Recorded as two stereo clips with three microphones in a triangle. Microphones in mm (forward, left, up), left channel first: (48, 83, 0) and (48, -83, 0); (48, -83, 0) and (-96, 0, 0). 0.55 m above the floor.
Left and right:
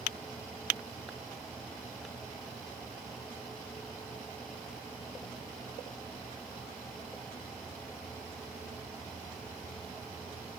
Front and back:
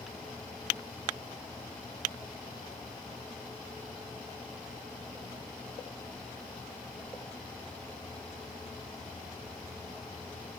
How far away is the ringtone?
No ringtone in this recording.